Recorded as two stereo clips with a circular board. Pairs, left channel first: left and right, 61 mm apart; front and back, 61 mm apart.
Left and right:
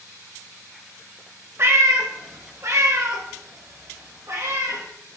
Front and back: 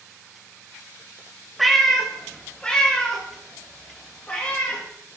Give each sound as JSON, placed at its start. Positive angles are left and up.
{"t": 1.6, "sound": "a cat meowing", "azimuth_deg": -90, "distance_m": 1.0}